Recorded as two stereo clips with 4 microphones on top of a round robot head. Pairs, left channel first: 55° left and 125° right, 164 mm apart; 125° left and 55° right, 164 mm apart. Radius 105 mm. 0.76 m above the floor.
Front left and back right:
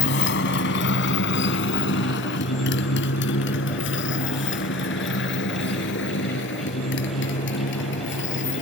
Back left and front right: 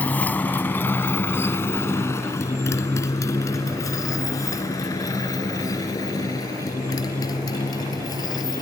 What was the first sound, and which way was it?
A motorcycle, 40° left.